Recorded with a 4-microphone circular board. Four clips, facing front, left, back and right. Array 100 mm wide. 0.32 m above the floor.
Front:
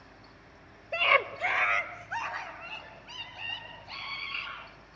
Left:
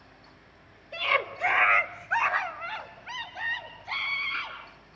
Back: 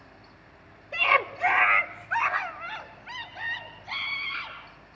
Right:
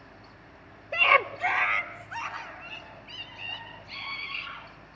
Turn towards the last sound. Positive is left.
turn(degrees=110)